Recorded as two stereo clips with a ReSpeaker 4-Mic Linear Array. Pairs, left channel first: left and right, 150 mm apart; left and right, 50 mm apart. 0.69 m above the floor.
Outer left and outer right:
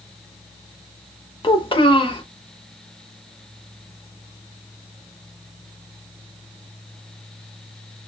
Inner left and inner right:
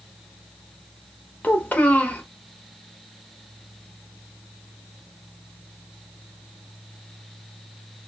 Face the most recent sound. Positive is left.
turn(degrees=35)  # may be behind; listen again after turning